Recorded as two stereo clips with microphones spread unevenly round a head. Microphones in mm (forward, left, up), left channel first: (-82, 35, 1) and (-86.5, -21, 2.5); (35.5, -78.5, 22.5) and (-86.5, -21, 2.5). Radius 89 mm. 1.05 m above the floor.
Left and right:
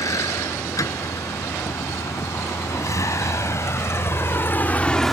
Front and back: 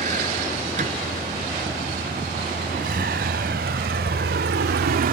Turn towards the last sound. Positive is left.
turn(degrees=175)